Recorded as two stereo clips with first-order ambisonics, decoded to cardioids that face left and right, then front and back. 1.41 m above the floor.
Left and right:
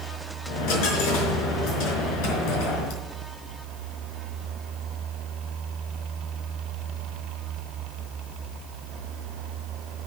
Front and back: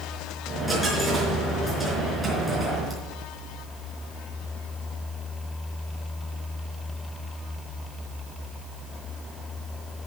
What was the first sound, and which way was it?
A dropped coin, 85° left.